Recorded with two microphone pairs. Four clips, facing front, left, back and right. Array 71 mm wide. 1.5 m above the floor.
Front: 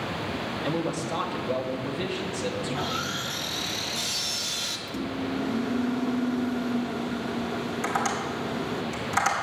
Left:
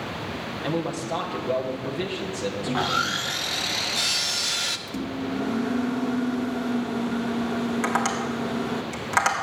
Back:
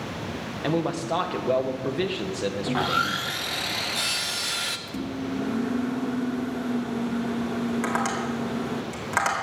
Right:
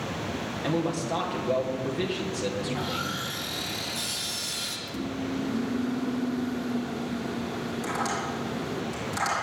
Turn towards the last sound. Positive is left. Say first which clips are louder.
# left 5 dB, back 1 dB
turn(degrees=120)